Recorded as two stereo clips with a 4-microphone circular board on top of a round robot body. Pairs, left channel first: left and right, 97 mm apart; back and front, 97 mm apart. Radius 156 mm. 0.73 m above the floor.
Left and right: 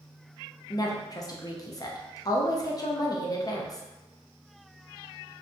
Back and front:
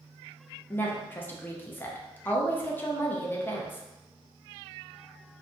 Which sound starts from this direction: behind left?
A woman speaking, at 0.7 s.